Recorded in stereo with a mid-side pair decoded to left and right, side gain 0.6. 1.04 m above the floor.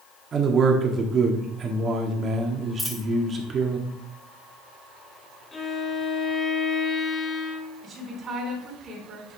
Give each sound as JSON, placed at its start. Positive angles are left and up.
{"t": 0.3, "sound": "a man speaking", "azimuth_deg": -40, "distance_m": 1.9}
{"t": 2.8, "sound": "a dropped coin", "azimuth_deg": 15, "distance_m": 1.7}
{"t": 5.5, "sound": "a violin", "azimuth_deg": 20, "distance_m": 1.6}
{"t": 7.8, "sound": "a woman speaking", "azimuth_deg": -40, "distance_m": 4.0}